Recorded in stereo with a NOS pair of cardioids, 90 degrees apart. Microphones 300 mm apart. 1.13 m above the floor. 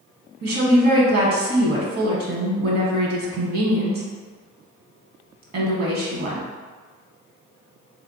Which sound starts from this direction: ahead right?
A woman speaking, at 0.4 s.